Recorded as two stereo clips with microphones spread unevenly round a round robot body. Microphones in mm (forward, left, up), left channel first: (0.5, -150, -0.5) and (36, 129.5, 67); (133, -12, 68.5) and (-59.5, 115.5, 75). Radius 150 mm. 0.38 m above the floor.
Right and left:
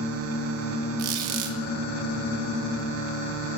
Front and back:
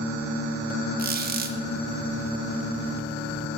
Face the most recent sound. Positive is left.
turn(degrees=95)